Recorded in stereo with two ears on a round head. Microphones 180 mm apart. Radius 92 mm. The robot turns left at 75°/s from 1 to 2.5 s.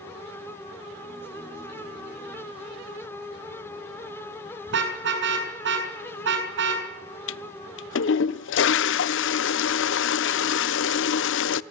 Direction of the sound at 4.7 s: 65° right (ahead or behind).